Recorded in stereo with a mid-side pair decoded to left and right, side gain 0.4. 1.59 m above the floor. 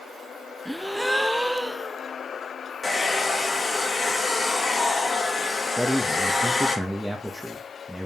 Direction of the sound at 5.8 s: Straight ahead.